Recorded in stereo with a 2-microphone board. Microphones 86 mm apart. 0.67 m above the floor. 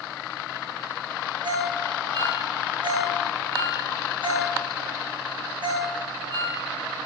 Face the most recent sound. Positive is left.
turn(degrees=-70)  # may be behind; listen again after turning